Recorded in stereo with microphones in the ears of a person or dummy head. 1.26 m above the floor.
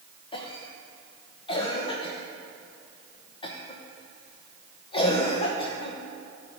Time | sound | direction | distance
0.3 | a cough | 30° left (ahead or behind) | 1.2 m